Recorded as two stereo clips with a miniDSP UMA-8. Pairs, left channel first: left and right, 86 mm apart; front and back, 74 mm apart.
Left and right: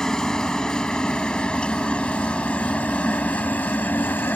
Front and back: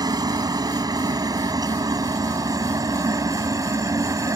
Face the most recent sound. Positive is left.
turn(degrees=155)